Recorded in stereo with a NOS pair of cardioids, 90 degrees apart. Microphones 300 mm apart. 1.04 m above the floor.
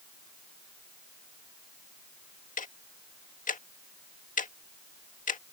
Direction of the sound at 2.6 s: 30° left.